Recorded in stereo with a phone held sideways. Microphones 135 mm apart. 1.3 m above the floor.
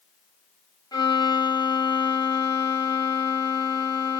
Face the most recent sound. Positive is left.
turn(degrees=30)  # may be behind; listen again after turning